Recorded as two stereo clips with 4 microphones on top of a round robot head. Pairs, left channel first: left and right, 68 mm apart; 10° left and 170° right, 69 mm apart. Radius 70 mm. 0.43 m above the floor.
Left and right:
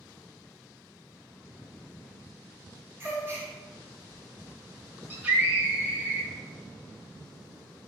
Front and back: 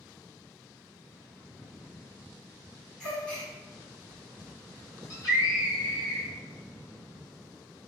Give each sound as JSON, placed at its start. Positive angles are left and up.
{"t": 3.0, "sound": "a gasp", "azimuth_deg": -65, "distance_m": 1.5}
{"t": 5.1, "sound": "a scream", "azimuth_deg": -25, "distance_m": 1.6}